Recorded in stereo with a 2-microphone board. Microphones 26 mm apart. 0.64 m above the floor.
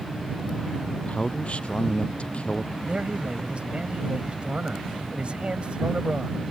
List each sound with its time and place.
0.9 s a man speaking: 50° left (ahead or behind)
2.8 s a man speaking: 45° right (ahead or behind)